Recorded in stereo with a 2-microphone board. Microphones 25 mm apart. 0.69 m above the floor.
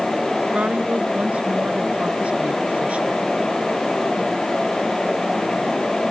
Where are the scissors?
I don't hear scissors.